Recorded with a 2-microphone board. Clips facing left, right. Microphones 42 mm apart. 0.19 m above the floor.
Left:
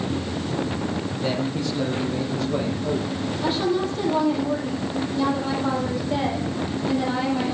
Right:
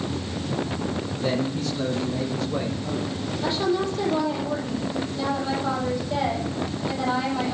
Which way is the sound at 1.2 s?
30° left (ahead or behind).